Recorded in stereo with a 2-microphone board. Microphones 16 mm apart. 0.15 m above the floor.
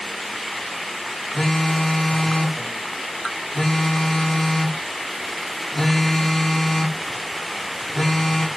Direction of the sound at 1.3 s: 20° left (ahead or behind).